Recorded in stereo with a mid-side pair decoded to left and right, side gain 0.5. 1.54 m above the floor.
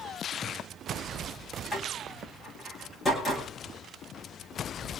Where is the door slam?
30° left, 9.5 m.